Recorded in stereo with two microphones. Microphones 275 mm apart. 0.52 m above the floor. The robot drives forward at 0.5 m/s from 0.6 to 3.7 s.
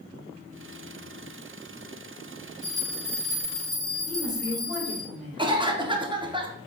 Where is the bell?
15° right (ahead or behind), 1.0 m; by 5.1 s 10° right (ahead or behind), 1.0 m.